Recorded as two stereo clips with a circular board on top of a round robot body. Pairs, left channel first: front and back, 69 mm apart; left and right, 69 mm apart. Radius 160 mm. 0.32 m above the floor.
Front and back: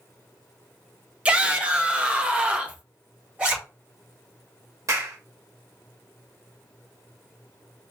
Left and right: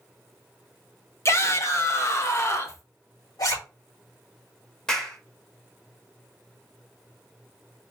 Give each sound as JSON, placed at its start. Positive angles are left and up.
{"t": 1.2, "sound": "a shout", "azimuth_deg": 115, "distance_m": 1.4}
{"t": 3.4, "sound": "a zipper", "azimuth_deg": 110, "distance_m": 3.5}
{"t": 4.9, "sound": "a clap", "azimuth_deg": 170, "distance_m": 1.9}